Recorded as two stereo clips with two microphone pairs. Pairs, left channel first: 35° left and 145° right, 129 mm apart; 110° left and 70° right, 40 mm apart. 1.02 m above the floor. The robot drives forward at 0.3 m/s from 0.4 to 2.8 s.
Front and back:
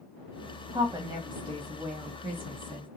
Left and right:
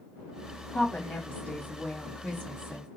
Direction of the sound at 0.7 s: 165° left.